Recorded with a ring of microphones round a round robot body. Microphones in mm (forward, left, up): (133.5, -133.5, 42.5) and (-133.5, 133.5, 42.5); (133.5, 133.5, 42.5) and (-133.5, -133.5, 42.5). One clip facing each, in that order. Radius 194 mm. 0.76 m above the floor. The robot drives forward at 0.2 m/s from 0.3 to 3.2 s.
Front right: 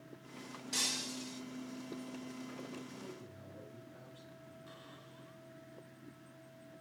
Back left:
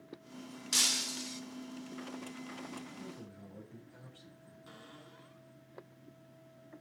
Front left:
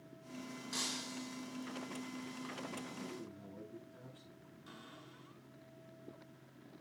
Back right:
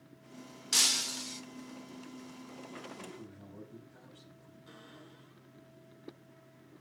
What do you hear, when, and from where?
0.7 s breaking glass: 170° right, 1.0 m
3.0 s a man speaking: 140° left, 6.5 m
4.7 s a cupboard door: 115° left, 8 m